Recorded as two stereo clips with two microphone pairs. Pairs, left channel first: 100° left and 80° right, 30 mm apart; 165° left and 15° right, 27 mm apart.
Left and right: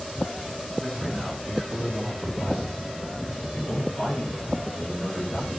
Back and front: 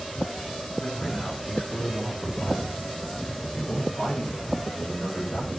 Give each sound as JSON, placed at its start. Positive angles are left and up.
{"t": 0.8, "sound": "a man speaking", "azimuth_deg": -165, "distance_m": 4.0}